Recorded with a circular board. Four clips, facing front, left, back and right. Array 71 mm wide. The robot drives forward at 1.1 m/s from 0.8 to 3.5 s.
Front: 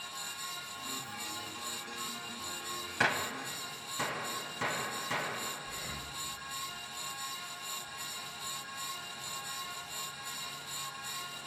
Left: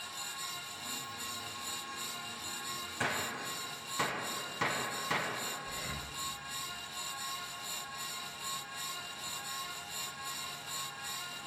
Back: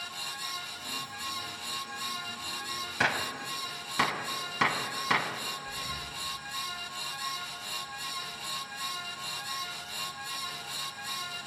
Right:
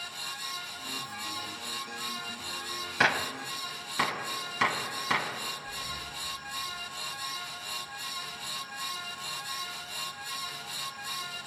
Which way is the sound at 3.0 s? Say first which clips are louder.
Right 9 dB, back 2 dB; 95° right.